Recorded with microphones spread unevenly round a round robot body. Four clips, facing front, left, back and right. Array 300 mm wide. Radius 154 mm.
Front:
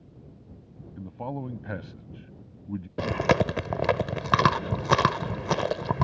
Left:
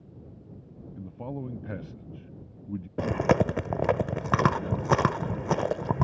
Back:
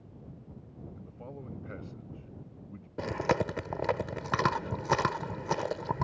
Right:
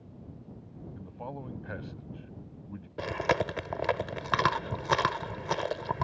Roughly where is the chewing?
Ahead left.